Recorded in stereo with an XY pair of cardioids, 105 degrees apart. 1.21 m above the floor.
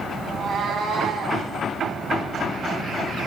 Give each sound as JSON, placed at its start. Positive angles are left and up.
{"t": 0.2, "sound": "a cat meowing", "azimuth_deg": -60, "distance_m": 2.5}